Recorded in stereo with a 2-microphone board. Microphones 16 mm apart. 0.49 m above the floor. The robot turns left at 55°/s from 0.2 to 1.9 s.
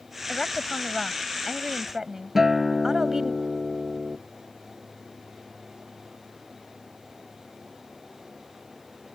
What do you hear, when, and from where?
0.3 s a woman speaking: 55° left; by 3.4 s 35° right
2.4 s a guitar: 20° right (ahead or behind)